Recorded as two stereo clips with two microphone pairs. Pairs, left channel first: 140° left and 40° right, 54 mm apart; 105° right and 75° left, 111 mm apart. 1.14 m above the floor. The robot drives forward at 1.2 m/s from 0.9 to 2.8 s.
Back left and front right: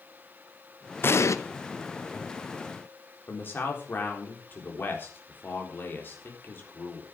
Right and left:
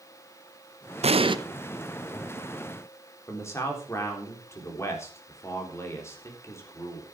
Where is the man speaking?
170° right, 3.5 m.